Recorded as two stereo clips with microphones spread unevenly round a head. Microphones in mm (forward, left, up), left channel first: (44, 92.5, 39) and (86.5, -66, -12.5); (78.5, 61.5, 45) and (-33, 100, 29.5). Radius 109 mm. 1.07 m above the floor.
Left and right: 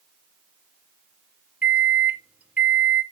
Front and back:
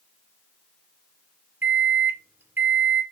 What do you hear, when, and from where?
1.6 s a microwave: 135° right, 0.5 m